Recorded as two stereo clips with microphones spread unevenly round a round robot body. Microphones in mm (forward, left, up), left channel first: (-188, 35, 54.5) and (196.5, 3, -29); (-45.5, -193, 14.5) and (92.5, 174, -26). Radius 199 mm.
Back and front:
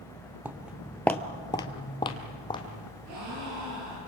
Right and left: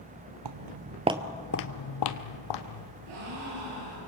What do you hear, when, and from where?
0.5 s footsteps: 90° left, 1.1 m; by 2.9 s 110° right, 2 m
3.1 s a gasp: 40° left, 9 m